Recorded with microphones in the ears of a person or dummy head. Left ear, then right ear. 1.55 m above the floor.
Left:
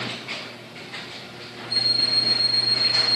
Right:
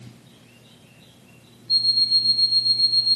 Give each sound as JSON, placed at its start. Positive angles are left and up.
{"t": 1.7, "sound": "an alarm clock", "side_deg": -30, "distance_m": 1.9}